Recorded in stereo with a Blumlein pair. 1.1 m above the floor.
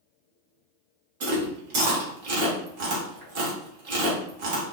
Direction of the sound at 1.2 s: 50° right.